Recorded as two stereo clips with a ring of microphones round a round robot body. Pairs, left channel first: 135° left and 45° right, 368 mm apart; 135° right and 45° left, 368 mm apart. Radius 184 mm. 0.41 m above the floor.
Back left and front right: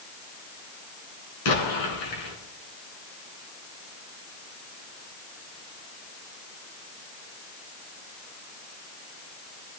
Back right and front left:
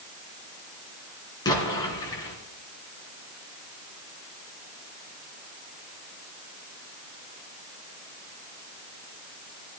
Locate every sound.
1.4 s an explosion: 145° left, 3.5 m